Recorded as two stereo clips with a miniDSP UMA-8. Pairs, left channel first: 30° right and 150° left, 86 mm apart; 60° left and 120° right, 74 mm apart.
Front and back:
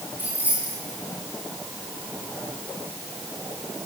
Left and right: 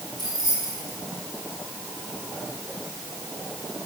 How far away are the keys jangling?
About 6 m.